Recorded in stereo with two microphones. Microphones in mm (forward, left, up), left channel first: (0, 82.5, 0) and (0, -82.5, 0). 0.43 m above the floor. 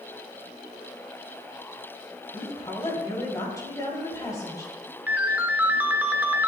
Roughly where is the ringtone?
Centre.